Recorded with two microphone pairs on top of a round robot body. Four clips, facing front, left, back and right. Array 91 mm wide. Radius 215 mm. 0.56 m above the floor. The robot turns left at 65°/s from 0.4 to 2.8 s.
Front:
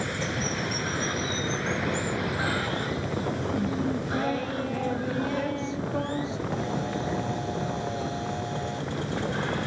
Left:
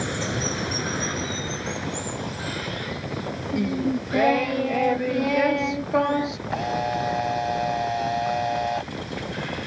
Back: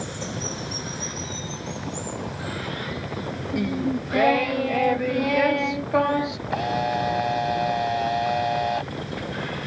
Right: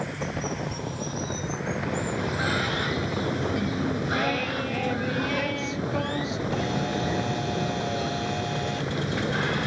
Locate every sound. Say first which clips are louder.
0.0 s running water: left 3 dB, front 2 dB; 85° left; by 9.7 s 70° right
3.5 s singing: left 3 dB, back 6 dB; 150° left
6.5 s a camera shutter: left 3 dB, back 5 dB; 150° left